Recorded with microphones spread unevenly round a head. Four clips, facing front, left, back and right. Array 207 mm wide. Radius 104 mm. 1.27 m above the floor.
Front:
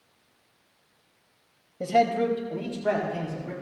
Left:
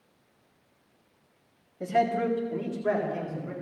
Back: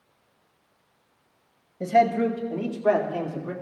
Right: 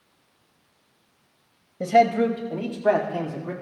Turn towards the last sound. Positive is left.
turn(degrees=-105)